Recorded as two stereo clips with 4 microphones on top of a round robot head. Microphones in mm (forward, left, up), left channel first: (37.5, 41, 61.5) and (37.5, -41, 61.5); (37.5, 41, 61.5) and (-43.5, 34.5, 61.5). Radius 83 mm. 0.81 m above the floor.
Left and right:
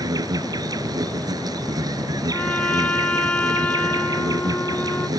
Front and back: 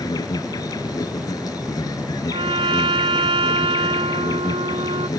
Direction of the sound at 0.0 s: 50° right.